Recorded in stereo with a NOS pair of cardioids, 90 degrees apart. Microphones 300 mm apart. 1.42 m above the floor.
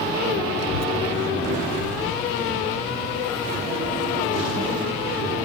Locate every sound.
0.6 s a child speaking: 60° left, 0.5 m; by 5.4 s 75° left, 5.5 m